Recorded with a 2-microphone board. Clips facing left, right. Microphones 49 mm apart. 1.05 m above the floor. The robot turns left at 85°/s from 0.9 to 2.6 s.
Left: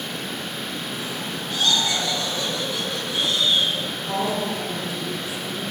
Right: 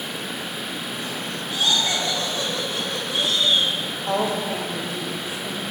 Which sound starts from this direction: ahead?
Laughter, at 1.5 s.